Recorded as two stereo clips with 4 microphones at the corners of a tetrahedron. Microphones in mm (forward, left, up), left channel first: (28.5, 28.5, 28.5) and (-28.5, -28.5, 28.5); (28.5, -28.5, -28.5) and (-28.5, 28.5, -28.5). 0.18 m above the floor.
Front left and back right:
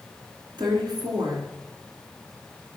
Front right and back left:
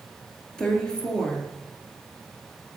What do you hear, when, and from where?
0.6 s a woman speaking: 125° right, 2.5 m